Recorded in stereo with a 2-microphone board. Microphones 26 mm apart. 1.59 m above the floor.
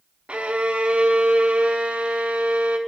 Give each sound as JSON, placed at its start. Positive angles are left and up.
{"t": 0.3, "sound": "a violin", "side_deg": -55, "distance_m": 0.5}